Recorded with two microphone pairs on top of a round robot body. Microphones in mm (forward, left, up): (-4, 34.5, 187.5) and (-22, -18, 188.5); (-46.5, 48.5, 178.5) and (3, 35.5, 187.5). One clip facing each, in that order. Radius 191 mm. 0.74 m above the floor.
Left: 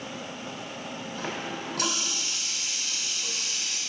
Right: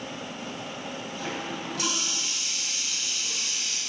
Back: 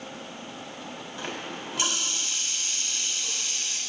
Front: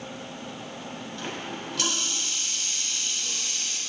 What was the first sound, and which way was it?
A running tap, 90° left.